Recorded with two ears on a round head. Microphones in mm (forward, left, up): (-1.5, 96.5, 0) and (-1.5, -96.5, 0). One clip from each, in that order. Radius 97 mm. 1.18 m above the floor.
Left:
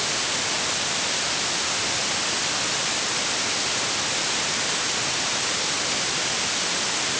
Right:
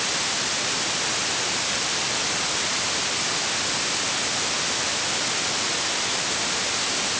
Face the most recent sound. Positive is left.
No sound to turn to.